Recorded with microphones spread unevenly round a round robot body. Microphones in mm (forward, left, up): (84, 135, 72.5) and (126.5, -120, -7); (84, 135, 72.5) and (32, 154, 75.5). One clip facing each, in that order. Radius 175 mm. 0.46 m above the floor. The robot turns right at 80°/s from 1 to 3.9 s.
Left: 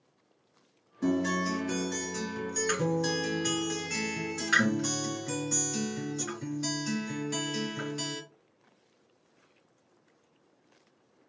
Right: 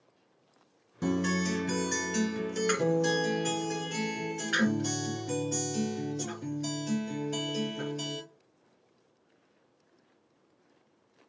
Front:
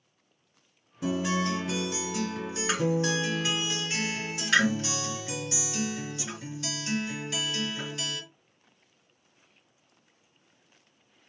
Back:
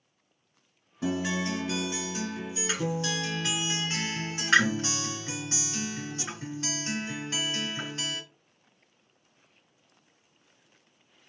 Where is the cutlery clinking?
I don't hear cutlery clinking.